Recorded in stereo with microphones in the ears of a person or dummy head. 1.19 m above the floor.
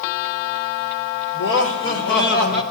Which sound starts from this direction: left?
Laughter, at 1.3 s.